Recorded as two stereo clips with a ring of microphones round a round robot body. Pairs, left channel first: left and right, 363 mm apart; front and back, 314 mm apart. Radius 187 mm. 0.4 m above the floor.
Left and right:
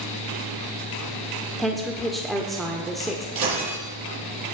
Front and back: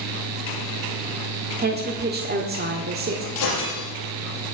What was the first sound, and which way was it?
A woman speaking, straight behind.